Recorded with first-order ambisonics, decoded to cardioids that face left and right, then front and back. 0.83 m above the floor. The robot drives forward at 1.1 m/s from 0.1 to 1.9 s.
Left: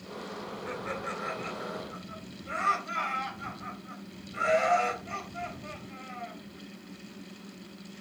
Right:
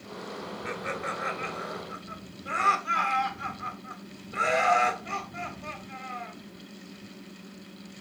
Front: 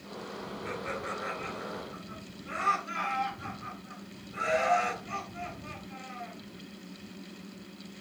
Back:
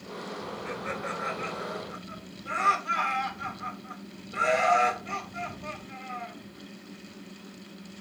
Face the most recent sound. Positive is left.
turn(degrees=-120)